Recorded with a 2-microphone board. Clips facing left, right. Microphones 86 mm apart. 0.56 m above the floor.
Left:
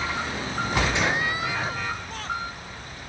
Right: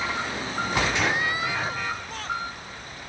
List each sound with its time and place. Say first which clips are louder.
0.9 s a gunshot: even; 25° left (ahead or behind), 2.5 m